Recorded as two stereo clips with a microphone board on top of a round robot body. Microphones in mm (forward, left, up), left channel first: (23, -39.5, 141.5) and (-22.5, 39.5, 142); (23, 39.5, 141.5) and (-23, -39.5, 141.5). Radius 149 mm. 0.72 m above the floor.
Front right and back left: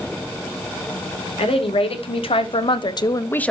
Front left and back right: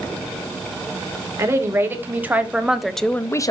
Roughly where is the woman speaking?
Ahead right.